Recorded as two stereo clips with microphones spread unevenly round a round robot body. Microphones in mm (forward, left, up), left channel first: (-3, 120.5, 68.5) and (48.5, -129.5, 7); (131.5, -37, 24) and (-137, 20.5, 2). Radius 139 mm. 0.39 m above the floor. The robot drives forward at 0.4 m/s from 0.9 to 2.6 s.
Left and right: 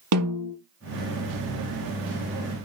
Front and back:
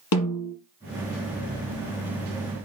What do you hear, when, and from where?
0.1 s a snare drum: 50° right, 4 m